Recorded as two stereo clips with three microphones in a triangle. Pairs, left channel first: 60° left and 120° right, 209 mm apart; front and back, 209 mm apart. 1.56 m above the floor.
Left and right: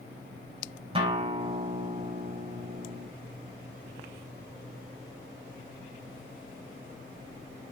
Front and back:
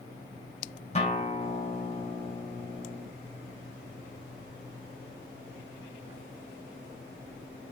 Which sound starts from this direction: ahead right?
A guitar, at 0.9 s.